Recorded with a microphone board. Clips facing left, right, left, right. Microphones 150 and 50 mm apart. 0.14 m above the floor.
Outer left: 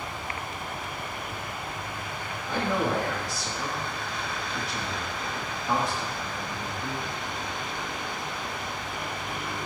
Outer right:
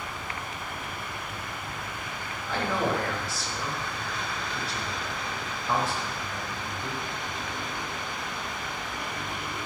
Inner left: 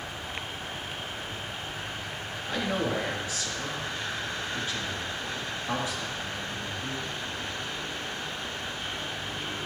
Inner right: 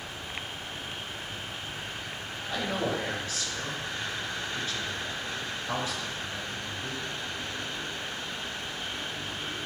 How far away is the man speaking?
About 2 m.